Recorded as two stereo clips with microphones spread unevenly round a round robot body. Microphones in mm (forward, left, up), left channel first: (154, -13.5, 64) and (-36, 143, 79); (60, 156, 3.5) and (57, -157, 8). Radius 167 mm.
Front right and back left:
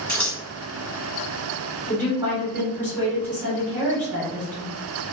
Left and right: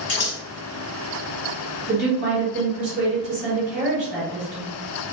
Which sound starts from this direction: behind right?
A woman speaking, at 1.9 s.